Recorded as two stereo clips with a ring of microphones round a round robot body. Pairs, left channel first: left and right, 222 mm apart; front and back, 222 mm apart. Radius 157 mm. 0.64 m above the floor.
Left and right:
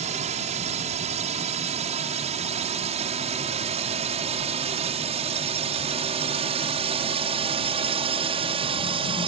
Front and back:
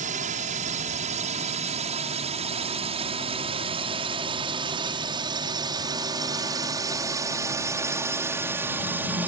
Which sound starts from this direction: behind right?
A drone, at 0.0 s.